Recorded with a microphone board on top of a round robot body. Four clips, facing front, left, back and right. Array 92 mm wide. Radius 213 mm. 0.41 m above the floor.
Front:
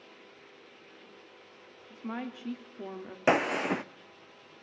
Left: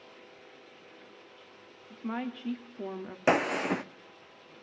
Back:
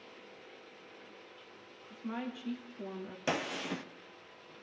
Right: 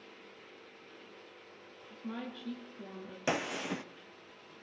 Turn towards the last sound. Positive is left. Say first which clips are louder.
# left 8 dB, front 10 dB
turn(degrees=40)